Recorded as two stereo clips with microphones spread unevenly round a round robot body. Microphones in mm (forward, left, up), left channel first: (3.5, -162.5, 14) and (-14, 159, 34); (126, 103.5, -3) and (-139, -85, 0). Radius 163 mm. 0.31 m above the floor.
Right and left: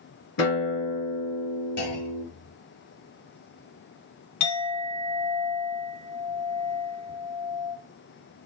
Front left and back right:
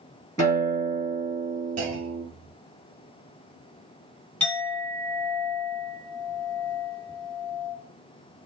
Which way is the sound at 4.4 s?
50° right.